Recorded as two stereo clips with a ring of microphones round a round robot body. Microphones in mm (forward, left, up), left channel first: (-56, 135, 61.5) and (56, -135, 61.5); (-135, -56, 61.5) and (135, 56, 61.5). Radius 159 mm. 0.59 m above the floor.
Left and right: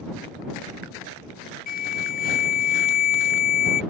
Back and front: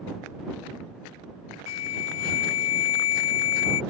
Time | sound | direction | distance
1.7 | an alarm | 170° left | ?